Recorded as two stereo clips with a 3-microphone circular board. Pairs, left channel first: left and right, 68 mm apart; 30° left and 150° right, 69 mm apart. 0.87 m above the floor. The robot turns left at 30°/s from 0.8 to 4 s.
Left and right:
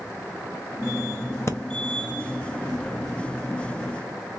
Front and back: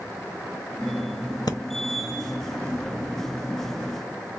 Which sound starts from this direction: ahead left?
Breathing, at 1.5 s.